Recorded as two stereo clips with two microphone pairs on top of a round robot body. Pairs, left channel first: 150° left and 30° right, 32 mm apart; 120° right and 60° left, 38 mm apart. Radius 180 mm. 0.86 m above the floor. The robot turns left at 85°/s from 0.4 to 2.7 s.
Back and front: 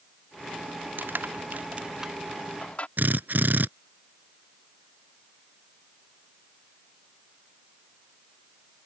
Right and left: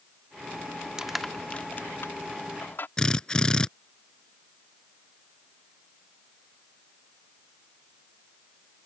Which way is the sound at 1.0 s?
15° right.